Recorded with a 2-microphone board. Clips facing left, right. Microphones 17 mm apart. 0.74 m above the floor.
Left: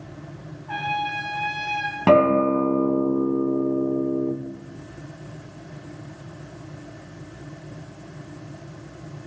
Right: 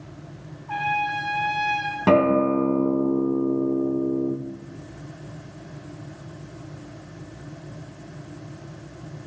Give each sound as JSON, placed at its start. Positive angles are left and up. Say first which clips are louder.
{"t": 0.7, "sound": "a trumpet", "louder": "right 2 dB", "side_deg": 55, "distance_m": 1.3}
{"t": 2.1, "sound": "a guitar", "louder": "left 2 dB", "side_deg": 35, "distance_m": 0.7}